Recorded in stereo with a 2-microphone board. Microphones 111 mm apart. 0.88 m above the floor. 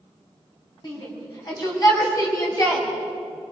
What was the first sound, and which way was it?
A shout, 40° left (ahead or behind).